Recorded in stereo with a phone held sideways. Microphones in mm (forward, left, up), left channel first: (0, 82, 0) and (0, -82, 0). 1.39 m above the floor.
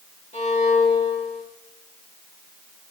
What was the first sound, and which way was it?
A violin, 45° left (ahead or behind).